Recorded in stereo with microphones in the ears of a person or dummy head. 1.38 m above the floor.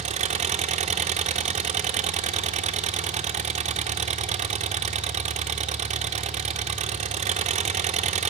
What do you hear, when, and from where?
0.0 s an engine running: 30° right (ahead or behind), 0.8 m